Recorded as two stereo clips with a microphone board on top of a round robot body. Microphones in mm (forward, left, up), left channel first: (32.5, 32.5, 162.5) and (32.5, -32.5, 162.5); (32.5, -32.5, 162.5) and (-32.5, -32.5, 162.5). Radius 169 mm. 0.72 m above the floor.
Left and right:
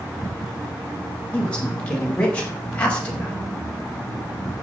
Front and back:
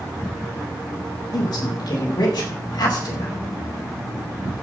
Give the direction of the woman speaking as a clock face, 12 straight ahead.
11 o'clock.